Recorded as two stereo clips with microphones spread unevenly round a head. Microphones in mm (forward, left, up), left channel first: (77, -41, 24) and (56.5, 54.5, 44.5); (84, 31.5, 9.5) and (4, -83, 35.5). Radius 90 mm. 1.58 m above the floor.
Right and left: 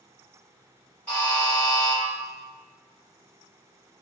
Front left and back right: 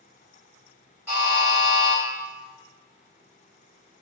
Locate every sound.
1.1 s a buzzer: 170° right, 1.2 m